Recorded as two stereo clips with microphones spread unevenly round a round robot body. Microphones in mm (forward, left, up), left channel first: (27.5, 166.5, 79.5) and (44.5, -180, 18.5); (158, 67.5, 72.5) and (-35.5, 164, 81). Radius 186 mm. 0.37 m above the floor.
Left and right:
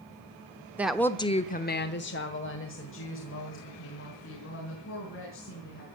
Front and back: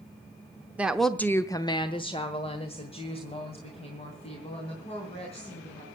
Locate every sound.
0.8 s a woman speaking: 130° right, 0.9 m; by 5.9 s 35° left, 4.5 m